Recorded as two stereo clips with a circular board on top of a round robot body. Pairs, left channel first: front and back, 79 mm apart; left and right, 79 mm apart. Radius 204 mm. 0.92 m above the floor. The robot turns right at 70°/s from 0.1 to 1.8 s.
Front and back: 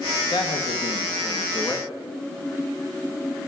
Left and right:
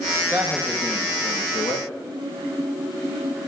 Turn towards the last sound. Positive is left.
turn(degrees=75)